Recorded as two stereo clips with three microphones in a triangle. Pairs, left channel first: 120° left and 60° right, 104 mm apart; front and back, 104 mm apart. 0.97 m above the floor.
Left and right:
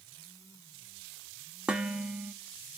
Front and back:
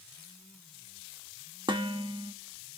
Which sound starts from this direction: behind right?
Dishes clattering, at 1.7 s.